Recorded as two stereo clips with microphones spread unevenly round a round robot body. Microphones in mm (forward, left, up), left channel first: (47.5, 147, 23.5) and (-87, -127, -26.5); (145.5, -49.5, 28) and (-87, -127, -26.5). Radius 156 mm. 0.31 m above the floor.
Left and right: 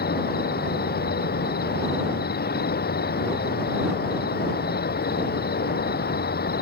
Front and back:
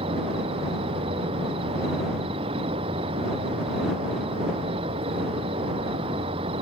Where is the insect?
125° left.